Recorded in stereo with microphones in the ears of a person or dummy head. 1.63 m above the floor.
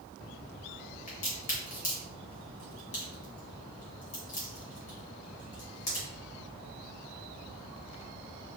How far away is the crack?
About 0.9 m.